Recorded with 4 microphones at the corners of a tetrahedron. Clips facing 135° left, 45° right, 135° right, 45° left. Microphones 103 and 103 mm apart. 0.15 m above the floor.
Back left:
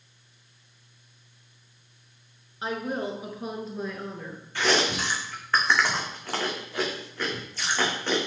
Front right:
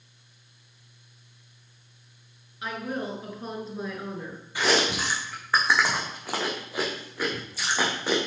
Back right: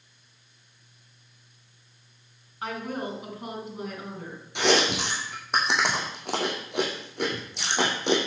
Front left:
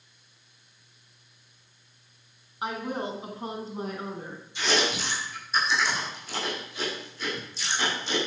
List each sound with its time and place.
2.6 s a woman speaking: 105° left, 2 m; by 4.4 s 20° left, 2.5 m
4.5 s chewing: 125° right, 2.5 m